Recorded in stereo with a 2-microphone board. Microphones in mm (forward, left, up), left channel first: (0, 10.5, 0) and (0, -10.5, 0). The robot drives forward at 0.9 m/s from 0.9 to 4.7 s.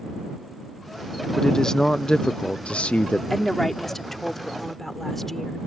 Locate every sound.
1.4 s a man speaking: 20° left (ahead or behind); by 3.2 s 60° left (ahead or behind)
3.3 s a woman speaking: 20° left (ahead or behind); by 5.6 s 15° left (ahead or behind)